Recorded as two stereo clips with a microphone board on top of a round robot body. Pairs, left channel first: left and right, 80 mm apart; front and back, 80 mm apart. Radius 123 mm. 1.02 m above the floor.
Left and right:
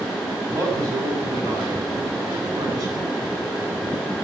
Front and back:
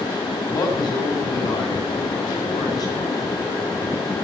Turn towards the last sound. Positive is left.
turn(degrees=-40)